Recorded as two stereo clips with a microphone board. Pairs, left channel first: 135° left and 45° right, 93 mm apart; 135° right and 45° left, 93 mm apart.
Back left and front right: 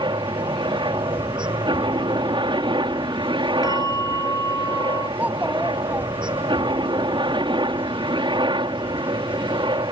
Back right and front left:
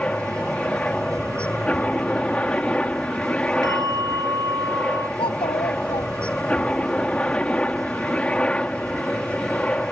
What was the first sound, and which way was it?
A helicopter, 60° right.